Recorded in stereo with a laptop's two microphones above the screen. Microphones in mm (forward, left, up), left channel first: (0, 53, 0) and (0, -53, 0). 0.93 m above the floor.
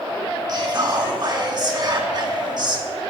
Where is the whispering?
45° right (ahead or behind), 1.4 m.